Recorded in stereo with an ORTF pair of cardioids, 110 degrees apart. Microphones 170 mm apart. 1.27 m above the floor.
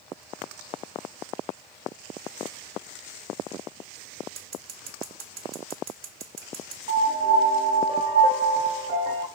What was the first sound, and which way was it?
Scissors, 65° right.